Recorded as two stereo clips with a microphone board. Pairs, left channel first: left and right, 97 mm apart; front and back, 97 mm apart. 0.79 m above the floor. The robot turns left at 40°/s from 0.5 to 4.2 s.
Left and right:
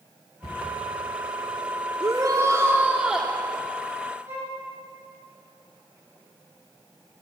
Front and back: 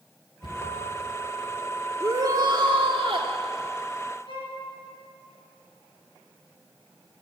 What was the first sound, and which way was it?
A cupboard door, 40° left.